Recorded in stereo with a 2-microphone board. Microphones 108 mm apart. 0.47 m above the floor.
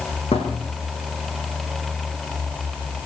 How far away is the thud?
About 6 m.